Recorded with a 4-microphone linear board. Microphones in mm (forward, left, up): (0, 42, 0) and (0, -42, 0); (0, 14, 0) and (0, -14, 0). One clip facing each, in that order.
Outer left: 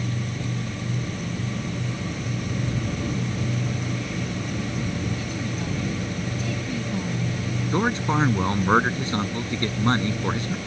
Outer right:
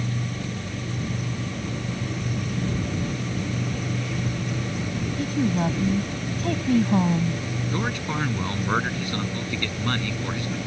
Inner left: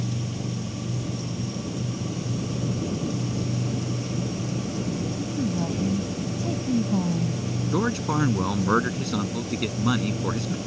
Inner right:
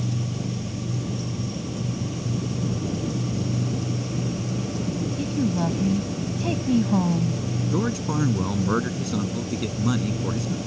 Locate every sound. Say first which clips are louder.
5.2 s a woman speaking: outer right 6 dB, inner right 5 dB; 55° right (ahead or behind)
7.7 s a man speaking: outer left 6 dB, inner left 2 dB; 30° left (ahead or behind)